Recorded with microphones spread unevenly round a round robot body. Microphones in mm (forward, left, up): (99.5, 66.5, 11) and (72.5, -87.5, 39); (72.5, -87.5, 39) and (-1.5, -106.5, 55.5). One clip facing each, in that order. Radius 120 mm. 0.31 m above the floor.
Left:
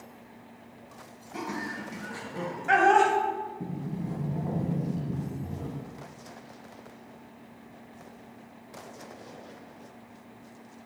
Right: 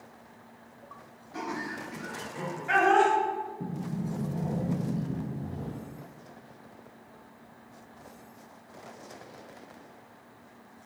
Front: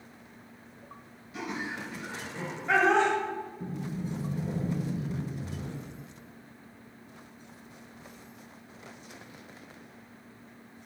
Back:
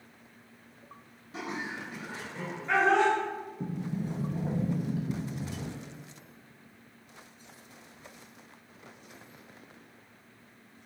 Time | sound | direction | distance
1.3 | laughter | 140° left | 1.8 m
3.6 | a sliding door | 165° left | 0.8 m